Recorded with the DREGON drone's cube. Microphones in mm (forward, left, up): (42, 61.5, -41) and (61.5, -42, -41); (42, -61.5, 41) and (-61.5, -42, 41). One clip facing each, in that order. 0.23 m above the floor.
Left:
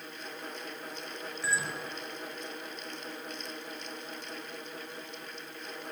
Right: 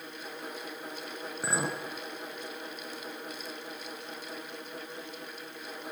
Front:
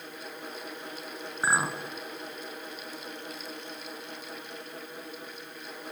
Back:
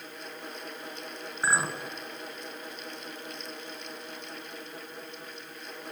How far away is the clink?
About 2.5 m.